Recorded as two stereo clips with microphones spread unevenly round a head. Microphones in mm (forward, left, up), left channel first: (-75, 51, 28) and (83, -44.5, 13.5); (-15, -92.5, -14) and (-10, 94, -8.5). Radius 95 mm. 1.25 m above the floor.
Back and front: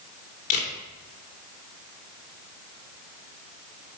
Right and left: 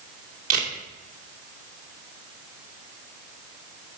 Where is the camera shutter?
95° left, 2.5 m.